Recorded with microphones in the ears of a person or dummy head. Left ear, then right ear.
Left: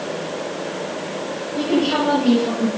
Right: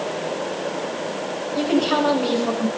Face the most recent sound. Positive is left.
turn(degrees=-55)  # may be behind; listen again after turning